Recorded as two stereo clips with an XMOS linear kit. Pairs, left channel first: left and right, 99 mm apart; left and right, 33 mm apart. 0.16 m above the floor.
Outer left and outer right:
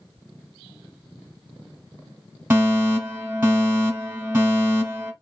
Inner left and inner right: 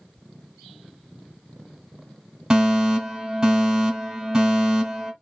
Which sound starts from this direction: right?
A fire alarm, at 2.5 s.